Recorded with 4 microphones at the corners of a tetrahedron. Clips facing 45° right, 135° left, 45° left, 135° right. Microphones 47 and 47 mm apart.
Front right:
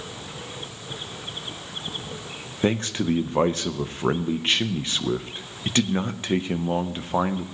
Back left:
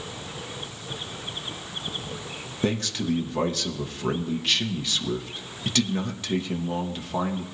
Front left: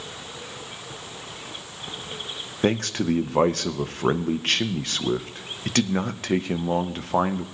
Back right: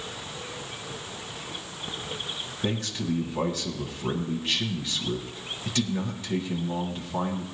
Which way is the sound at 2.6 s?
15° left.